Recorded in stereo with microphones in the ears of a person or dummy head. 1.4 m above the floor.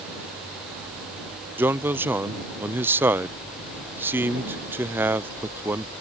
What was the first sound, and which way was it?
A man speaking, 10° right (ahead or behind).